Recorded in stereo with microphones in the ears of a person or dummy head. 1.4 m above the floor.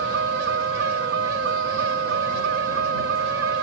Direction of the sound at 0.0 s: 60° right (ahead or behind).